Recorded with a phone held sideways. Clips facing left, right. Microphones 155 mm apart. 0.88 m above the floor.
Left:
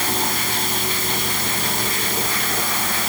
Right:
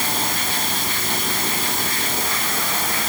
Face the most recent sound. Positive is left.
No sound to turn to.